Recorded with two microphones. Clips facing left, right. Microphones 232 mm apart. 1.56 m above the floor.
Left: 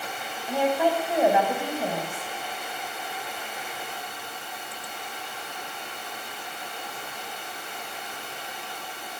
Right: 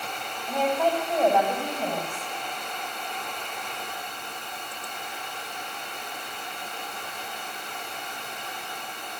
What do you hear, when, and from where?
0.5 s a woman speaking: 10° left (ahead or behind), 8 m